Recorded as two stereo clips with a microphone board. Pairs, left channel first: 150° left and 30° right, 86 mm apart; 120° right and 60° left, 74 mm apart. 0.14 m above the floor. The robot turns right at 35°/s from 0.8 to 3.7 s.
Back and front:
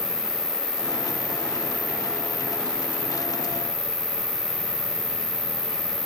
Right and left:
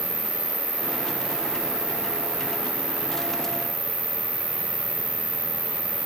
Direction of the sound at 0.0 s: 155° right.